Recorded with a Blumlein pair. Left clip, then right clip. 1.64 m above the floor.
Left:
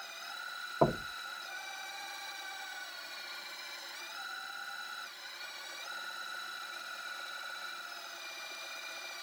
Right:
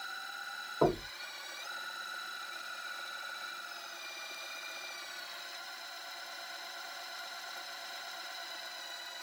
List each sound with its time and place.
0.8 s knocking: 15° left, 1.6 m